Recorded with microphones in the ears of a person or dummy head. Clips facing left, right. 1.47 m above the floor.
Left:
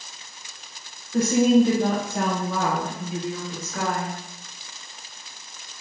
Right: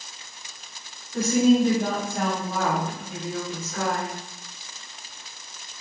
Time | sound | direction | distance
1.1 | a woman speaking | 45° left (ahead or behind) | 1.0 m